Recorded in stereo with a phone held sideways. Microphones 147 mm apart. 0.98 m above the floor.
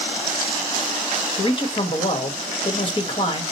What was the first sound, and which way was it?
A man speaking, 35° left (ahead or behind).